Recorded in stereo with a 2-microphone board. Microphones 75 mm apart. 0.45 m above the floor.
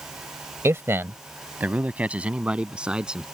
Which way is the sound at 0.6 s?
35° right (ahead or behind).